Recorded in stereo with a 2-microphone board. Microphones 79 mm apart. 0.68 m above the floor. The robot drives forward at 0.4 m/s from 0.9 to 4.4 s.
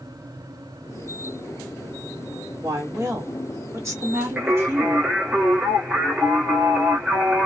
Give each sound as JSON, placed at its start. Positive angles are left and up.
{"t": 2.6, "sound": "a woman speaking", "side_deg": -45, "distance_m": 1.6}
{"t": 4.4, "sound": "singing", "side_deg": -10, "distance_m": 1.3}